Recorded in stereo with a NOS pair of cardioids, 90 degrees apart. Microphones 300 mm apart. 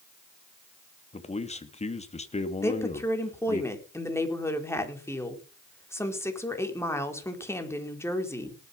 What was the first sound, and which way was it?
A man speaking, 20° left.